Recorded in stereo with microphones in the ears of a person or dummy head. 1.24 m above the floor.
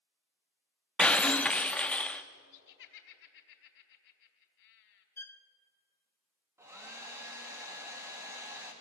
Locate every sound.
1.0 s breaking glass: 5° left (ahead or behind), 0.8 m
2.5 s laughter: 65° left (ahead or behind), 4 m
5.2 s a violin: 10° left (ahead or behind), 0.9 m
6.6 s a hair dryer: 15° right (ahead or behind), 2.5 m